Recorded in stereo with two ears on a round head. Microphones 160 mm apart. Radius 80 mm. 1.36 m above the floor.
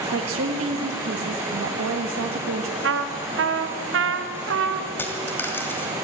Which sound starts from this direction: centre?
A dropped coin, at 5.0 s.